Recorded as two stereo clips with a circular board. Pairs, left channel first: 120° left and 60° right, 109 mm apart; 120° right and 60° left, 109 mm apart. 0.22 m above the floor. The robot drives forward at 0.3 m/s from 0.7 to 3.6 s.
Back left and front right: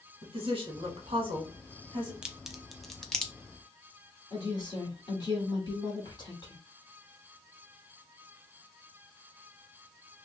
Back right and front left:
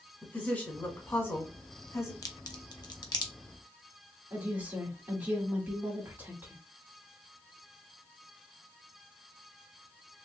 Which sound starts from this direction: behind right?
A crack, at 2.2 s.